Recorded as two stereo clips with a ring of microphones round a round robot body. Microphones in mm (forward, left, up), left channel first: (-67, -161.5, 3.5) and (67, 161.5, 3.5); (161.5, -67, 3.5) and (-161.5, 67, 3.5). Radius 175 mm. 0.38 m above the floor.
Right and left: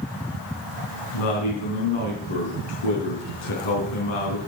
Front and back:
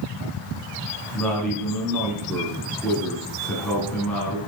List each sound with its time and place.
1.1 s a man speaking: 110° right, 4 m